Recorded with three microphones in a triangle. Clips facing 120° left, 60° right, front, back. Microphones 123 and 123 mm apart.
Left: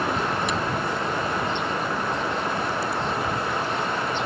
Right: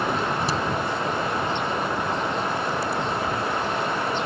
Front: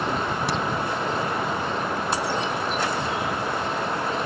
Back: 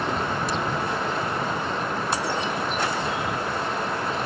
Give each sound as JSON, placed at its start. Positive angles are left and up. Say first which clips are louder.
{"t": 0.5, "sound": "a crack", "louder": "right 1 dB, front 1 dB", "azimuth_deg": -5}